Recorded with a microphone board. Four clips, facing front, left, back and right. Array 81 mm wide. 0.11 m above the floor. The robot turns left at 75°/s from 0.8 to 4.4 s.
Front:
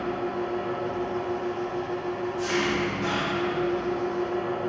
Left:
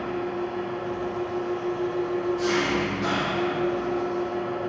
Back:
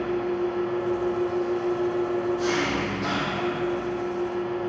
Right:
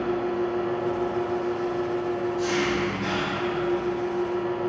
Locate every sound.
0.0 s an engine running: 75° right, 3 m; by 4.7 s 15° left, 3 m